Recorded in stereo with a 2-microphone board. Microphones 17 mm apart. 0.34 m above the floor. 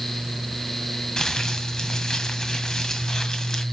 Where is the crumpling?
40° left (ahead or behind), 2 m.